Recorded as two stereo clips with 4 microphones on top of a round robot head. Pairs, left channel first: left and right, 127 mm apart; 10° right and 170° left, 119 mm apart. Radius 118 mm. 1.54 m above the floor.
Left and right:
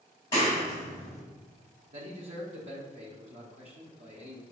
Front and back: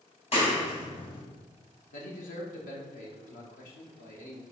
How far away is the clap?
About 2.0 m.